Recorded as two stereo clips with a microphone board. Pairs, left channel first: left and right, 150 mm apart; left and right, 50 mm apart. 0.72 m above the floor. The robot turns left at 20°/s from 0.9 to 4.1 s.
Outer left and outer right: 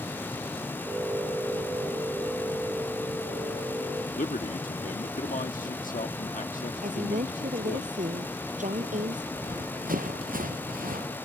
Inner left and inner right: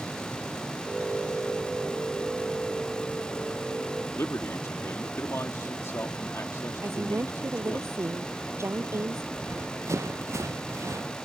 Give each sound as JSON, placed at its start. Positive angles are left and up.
{"t": 4.2, "sound": "a man speaking", "side_deg": 60}
{"t": 6.8, "sound": "a woman speaking", "side_deg": -55}
{"t": 9.3, "sound": "running footsteps", "side_deg": -60}